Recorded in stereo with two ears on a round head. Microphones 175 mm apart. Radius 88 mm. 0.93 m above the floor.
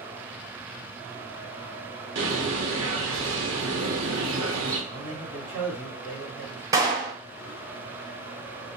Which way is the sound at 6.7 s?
20° right (ahead or behind).